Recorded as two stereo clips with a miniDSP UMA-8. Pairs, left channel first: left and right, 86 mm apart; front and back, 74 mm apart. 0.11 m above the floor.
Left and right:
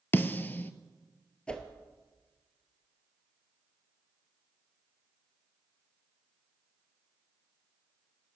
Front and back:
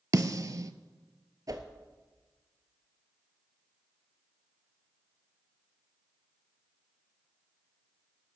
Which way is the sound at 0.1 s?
155° left.